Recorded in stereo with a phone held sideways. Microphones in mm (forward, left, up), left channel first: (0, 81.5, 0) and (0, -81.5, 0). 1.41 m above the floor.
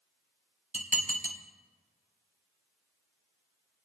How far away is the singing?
I don't hear singing.